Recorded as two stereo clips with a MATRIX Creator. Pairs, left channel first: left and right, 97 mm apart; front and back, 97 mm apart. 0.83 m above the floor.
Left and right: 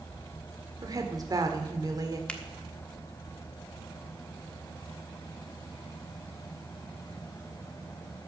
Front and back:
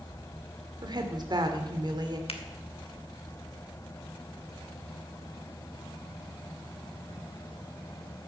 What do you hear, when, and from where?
0.8 s a woman speaking: 140° right, 1.9 m
2.3 s a finger snap: 10° left, 1.4 m